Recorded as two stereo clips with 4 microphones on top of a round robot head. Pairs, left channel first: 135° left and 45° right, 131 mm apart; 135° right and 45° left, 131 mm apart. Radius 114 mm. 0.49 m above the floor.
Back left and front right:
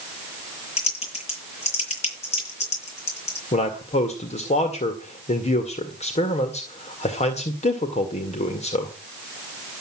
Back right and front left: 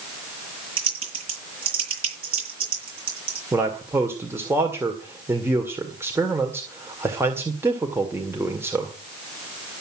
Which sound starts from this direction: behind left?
A man speaking, at 3.5 s.